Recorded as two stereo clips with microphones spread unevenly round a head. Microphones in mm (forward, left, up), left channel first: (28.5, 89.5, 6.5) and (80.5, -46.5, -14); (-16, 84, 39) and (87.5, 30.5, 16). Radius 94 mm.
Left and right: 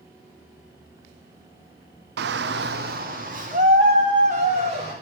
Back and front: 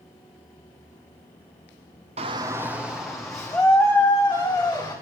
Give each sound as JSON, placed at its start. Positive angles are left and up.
{"t": 2.2, "sound": "a shout", "azimuth_deg": -75, "distance_m": 0.6}